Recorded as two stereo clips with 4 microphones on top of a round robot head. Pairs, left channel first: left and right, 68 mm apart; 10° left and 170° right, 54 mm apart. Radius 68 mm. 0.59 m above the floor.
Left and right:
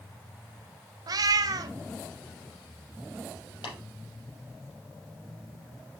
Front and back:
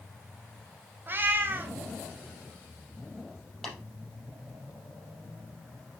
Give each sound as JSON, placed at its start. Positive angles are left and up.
{"t": 1.1, "sound": "a cat meowing", "azimuth_deg": -120, "distance_m": 0.8}
{"t": 3.6, "sound": "tapping", "azimuth_deg": 90, "distance_m": 4.5}